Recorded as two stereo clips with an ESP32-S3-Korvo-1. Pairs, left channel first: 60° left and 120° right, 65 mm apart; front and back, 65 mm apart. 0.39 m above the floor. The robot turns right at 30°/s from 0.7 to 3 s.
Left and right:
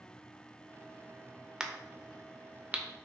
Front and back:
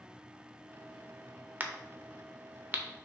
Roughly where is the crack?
Behind.